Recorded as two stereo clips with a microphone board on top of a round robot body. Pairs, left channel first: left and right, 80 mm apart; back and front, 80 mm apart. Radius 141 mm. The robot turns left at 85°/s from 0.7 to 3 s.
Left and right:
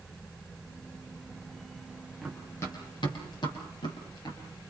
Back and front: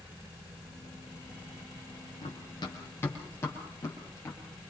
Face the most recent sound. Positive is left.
turn(degrees=125)